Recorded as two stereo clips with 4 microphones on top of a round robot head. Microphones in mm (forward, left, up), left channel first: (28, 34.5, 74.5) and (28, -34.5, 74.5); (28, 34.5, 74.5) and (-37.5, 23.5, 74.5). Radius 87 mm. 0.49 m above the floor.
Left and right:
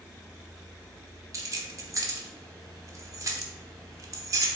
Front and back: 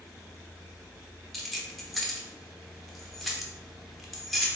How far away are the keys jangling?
About 0.8 m.